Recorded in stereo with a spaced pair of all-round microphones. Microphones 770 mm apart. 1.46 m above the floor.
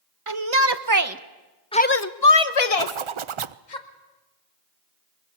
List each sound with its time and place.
0.3 s a shout: 40° right (ahead or behind), 1.3 m; by 3.8 s 70° left (ahead or behind), 1.6 m
2.8 s a zipper: 45° right (ahead or behind), 0.5 m